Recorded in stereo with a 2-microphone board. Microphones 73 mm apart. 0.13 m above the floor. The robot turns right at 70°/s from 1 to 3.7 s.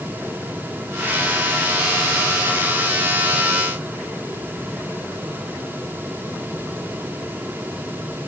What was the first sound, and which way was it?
Only background noise.